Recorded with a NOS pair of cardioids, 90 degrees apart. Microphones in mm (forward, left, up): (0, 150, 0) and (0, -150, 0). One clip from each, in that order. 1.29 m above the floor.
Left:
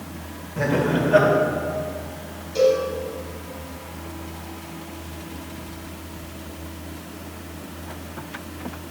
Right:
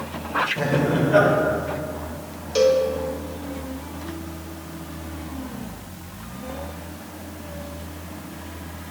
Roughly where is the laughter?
Ahead.